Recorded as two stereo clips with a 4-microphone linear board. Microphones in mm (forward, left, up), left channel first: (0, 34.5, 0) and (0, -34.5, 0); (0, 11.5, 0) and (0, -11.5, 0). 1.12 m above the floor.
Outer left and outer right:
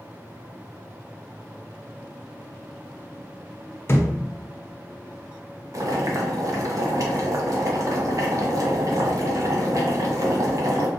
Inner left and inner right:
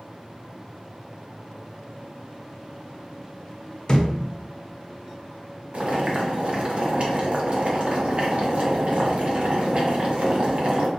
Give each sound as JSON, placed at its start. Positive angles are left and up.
{"t": 3.9, "sound": "a thud", "side_deg": 35, "distance_m": 0.6}
{"t": 5.7, "sound": "boiling", "side_deg": -50, "distance_m": 0.7}